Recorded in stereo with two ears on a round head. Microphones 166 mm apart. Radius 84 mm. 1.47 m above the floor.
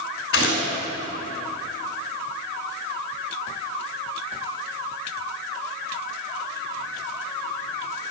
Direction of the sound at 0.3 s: 55° left (ahead or behind).